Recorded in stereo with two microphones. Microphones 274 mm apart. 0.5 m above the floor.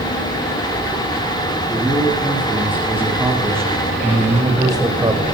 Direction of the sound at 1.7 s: 5° right (ahead or behind).